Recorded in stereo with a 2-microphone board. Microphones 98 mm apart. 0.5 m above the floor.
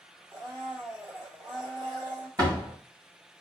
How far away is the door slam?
About 2.5 m.